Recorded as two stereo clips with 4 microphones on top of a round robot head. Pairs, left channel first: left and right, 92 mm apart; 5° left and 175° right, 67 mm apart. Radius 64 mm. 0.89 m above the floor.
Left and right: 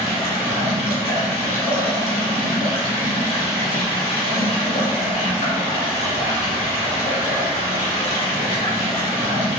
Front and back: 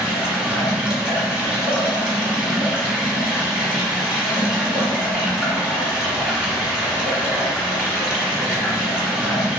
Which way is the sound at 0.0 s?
105° left.